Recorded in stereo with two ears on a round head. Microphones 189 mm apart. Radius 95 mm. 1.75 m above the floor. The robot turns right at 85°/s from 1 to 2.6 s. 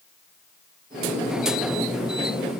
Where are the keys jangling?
I don't hear keys jangling.